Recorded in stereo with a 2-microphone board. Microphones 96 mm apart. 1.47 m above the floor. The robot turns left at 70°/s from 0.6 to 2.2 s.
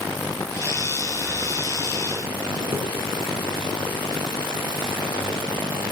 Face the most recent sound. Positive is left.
turn(degrees=-50)  # may be behind; listen again after turning